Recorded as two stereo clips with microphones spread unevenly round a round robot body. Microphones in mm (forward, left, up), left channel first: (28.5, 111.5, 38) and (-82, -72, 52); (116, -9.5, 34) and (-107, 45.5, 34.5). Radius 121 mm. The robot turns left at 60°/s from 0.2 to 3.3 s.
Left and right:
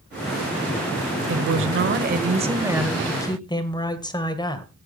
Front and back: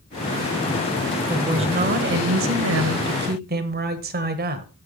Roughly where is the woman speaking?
Behind right.